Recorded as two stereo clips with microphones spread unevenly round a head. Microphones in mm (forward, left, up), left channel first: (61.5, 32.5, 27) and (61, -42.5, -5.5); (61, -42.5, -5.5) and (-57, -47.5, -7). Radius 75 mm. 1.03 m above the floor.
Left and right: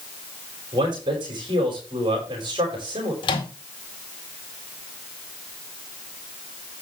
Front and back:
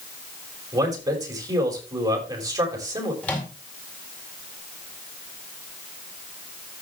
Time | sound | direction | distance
0.7 | a man speaking | 120° right | 5.5 m
3.2 | a microwave | 85° left | 2 m